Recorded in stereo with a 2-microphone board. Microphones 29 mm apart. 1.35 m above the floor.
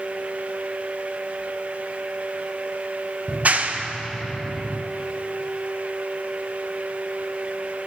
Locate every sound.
3.3 s a clap: 60° right (ahead or behind), 0.6 m